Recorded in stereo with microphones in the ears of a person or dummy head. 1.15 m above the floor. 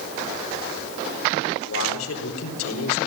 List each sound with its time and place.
1.7 s a man speaking: 80° left, 4 m